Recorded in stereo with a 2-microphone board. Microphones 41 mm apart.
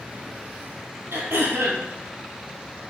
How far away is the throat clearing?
About 1.3 m.